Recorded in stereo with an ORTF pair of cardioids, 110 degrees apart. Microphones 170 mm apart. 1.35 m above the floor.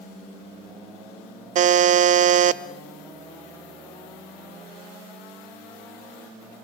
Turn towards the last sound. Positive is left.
turn(degrees=-45)